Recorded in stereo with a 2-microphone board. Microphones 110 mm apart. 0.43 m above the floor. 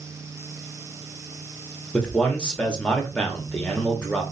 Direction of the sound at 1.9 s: 10° left (ahead or behind).